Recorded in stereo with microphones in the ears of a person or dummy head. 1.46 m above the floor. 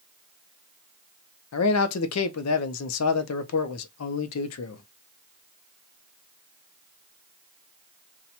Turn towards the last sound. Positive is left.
turn(degrees=75)  # may be behind; listen again after turning